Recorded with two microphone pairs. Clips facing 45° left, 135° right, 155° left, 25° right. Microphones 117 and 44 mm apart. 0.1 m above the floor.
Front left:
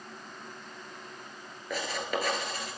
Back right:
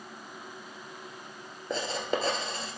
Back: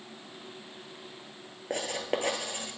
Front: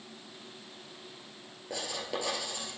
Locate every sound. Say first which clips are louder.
1.7 s writing: back right 2 dB, back 5 dB; 170° left, 1.0 m